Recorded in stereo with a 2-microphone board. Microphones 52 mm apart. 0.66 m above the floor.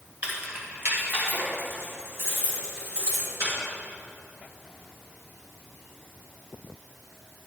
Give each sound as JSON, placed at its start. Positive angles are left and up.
{"t": 0.2, "sound": "keys jangling", "side_deg": -35, "distance_m": 2.5}